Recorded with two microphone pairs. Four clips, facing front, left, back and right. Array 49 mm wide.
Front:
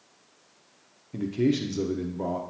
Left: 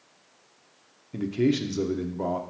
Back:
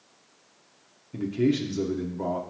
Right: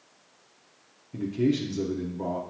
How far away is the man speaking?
About 1.0 m.